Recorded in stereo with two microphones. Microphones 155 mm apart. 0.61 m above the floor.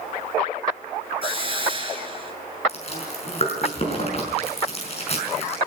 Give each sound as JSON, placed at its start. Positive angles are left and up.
{"t": 1.2, "sound": "a hiss", "side_deg": -35, "distance_m": 2.0}
{"t": 2.7, "sound": "chewing", "side_deg": 45, "distance_m": 5.5}